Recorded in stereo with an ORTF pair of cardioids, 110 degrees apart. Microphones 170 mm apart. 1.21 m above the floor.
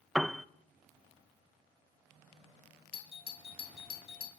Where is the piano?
Straight ahead, 0.5 m.